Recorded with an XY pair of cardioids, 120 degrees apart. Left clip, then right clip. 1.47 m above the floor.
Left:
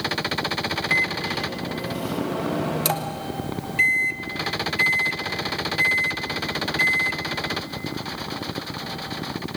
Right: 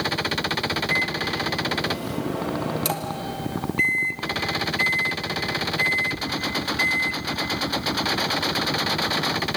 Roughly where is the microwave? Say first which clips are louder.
Left 4 dB; ahead.